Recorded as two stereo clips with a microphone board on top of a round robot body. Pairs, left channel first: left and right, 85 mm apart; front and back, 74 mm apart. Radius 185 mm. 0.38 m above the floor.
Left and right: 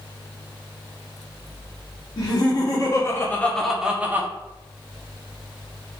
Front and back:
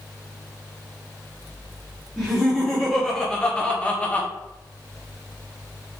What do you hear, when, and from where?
2.2 s laughter: 95° left, 1.9 m; by 4.3 s 55° right, 1.4 m